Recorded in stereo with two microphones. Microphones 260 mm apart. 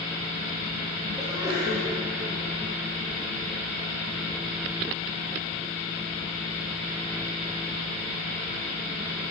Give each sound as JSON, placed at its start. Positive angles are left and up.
{"t": 1.2, "sound": "a sneeze", "side_deg": -15, "distance_m": 4.0}